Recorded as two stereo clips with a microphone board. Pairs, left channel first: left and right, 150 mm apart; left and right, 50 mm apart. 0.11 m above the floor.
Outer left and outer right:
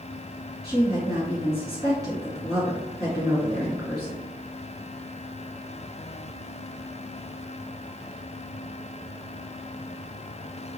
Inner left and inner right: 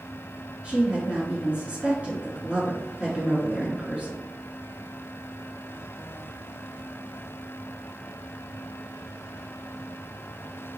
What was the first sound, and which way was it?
A woman speaking, 25° right (ahead or behind).